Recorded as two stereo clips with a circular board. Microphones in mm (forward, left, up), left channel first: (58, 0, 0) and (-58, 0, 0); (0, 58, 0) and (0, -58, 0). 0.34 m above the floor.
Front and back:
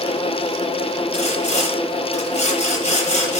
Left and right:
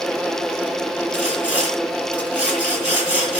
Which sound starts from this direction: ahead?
Sawing, at 1.1 s.